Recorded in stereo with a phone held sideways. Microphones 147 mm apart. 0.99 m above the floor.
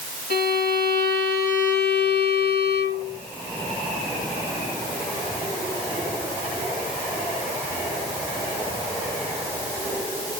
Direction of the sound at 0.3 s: 80° left.